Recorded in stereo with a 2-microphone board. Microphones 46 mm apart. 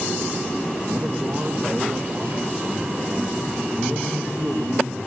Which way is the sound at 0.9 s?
45° right (ahead or behind).